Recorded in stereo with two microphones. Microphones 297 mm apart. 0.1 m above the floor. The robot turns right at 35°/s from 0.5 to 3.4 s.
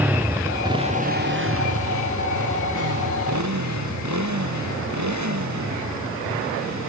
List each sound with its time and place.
0.0 s a motorcycle: 5° right (ahead or behind); by 6.9 s 65° right (ahead or behind)